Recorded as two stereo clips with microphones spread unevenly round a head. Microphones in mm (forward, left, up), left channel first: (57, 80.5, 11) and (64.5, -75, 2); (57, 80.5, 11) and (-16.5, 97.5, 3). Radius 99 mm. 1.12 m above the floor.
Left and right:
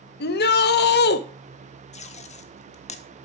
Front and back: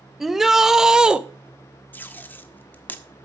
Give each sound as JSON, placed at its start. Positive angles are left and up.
{"t": 0.2, "sound": "a shout", "azimuth_deg": 80, "distance_m": 1.5}
{"t": 1.9, "sound": "tape being pulled", "azimuth_deg": 50, "distance_m": 1.2}